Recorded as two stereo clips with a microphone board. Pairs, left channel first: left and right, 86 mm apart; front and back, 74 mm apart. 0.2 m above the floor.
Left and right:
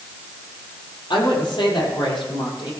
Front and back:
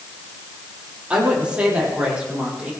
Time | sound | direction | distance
1.1 | a woman speaking | 105° left | 6.5 m